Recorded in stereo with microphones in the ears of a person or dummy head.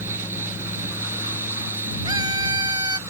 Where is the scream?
20° right (ahead or behind).